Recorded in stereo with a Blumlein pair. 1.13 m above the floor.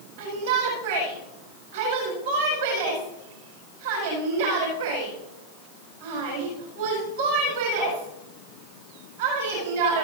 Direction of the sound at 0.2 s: 60° right.